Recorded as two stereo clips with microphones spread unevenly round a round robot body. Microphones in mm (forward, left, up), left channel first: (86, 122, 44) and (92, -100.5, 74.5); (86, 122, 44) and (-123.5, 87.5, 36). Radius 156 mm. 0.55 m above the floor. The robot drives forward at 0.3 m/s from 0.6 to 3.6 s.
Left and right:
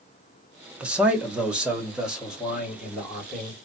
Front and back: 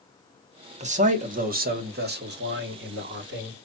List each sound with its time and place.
0.8 s a man speaking: 175° left, 1.0 m; by 3.5 s straight behind, 1.6 m